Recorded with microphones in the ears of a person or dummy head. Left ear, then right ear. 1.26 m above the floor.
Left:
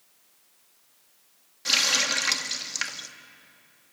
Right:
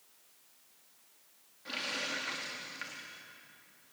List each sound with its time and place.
1.6 s a running tap: 80° left, 1.6 m